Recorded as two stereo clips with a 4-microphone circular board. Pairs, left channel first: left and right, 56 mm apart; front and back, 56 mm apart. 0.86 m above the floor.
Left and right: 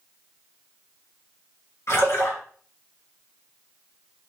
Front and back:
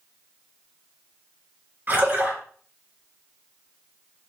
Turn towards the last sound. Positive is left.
turn(degrees=125)